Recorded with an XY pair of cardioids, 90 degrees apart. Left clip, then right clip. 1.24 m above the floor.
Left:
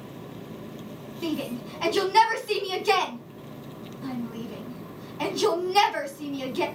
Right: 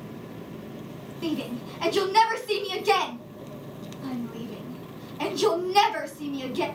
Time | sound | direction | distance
1.2 | a shout | straight ahead | 1.0 m